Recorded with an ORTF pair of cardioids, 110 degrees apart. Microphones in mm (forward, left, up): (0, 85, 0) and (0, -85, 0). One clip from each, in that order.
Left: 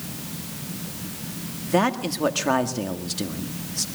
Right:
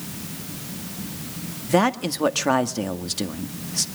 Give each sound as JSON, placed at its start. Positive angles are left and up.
{"t": 1.7, "sound": "a man speaking", "azimuth_deg": -25, "distance_m": 1.7}